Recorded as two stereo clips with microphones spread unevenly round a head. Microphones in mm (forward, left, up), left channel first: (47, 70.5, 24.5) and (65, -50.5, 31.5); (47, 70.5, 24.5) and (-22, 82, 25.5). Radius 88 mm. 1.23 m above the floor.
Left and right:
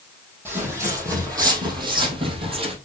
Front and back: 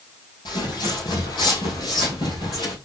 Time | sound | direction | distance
0.5 | footsteps | 10° right | 2.5 m